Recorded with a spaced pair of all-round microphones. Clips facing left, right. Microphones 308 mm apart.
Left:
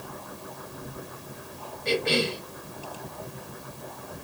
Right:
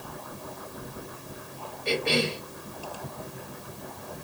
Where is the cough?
20° left (ahead or behind), 2 m.